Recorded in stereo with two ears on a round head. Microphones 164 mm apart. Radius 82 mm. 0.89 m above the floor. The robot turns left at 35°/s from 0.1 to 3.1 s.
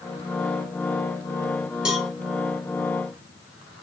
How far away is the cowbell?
About 0.7 m.